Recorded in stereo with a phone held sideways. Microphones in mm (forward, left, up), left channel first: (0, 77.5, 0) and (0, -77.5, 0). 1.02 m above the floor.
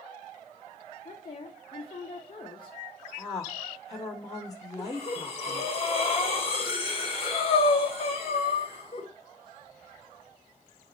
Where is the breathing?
35° left (ahead or behind), 1.9 m.